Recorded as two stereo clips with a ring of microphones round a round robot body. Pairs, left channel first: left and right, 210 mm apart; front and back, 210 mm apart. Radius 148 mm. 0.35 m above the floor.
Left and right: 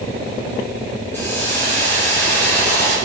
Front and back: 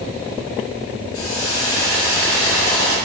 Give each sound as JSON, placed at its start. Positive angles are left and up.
{"t": 1.1, "sound": "a hiss", "azimuth_deg": 10, "distance_m": 6.5}